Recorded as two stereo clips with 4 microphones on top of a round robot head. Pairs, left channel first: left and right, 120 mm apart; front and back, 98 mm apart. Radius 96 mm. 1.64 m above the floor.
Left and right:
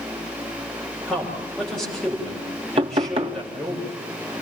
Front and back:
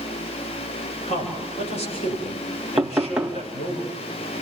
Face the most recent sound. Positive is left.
turn(degrees=-105)